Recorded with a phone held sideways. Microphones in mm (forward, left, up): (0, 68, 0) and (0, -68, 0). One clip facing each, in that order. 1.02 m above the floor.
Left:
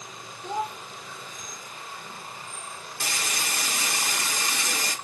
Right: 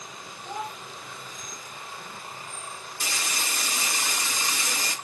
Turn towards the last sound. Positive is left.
turn(degrees=60)  # may be behind; listen again after turning